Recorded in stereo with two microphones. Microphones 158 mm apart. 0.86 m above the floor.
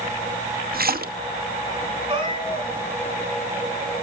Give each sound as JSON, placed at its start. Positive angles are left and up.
{"t": 0.7, "sound": "a splash", "side_deg": -75, "distance_m": 1.0}
{"t": 2.1, "sound": "a cat meowing", "side_deg": -30, "distance_m": 7.0}